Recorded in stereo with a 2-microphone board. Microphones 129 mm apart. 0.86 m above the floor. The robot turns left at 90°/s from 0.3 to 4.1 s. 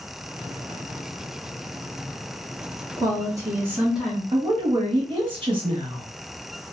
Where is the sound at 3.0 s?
30° right (ahead or behind), 0.9 m; by 4.2 s centre (ahead or behind), 0.9 m.